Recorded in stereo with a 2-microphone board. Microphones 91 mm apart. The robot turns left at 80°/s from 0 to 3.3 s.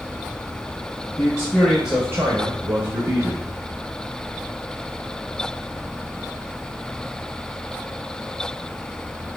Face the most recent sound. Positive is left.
turn(degrees=-135)